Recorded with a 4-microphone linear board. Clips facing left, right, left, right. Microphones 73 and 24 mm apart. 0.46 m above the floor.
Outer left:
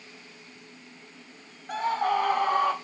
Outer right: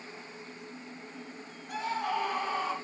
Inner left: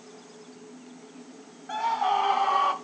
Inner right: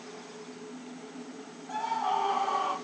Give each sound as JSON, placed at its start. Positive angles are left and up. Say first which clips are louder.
{"t": 1.7, "sound": "a scream", "louder": "outer left 6 dB, inner left 4 dB", "side_deg": 45, "distance_m": 2.0}